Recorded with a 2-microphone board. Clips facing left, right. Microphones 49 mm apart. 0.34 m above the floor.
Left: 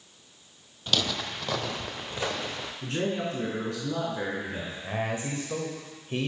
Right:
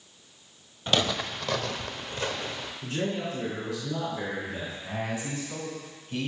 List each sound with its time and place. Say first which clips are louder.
0.9 s footsteps: right 3 dB; 25° right (ahead or behind), 0.7 m; by 2.7 s 20° left (ahead or behind), 1.8 m
2.8 s a man speaking: left 1 dB; 50° left (ahead or behind), 3.5 m
4.8 s a man speaking: left 3 dB; 35° left (ahead or behind), 1.1 m